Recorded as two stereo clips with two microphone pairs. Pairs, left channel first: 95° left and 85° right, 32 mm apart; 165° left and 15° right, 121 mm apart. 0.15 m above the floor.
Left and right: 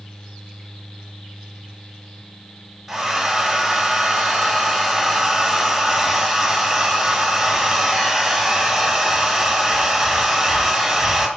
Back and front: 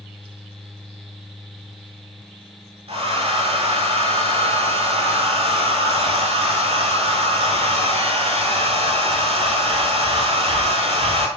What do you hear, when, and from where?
2.9 s a hair dryer: 10° right, 0.8 m